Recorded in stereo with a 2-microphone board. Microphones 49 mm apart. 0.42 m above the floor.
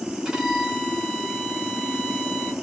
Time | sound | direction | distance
0.2 | a violin | 10° right (ahead or behind) | 2 m